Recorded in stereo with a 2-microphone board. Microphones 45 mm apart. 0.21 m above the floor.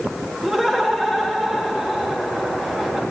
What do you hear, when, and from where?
0.4 s laughter: 5° right (ahead or behind), 3.5 m